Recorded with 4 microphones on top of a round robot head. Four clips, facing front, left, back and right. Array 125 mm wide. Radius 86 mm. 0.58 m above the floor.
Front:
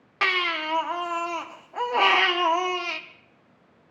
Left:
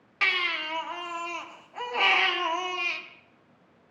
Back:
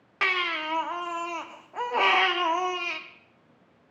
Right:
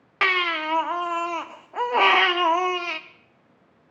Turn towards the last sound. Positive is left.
turn(degrees=-80)